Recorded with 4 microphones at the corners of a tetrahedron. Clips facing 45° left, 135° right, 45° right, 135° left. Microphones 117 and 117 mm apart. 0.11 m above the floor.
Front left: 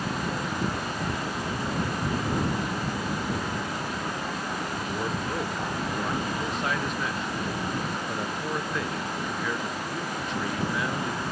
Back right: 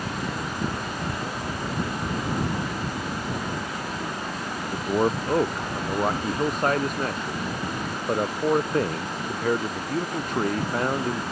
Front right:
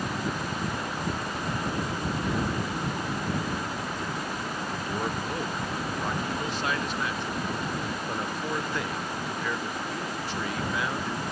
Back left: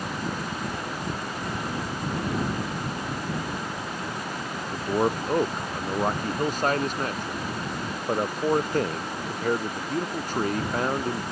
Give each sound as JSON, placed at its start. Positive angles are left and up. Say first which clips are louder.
{"t": 4.7, "sound": "a man speaking", "louder": "back right 12 dB, back left 9 dB", "azimuth_deg": 180}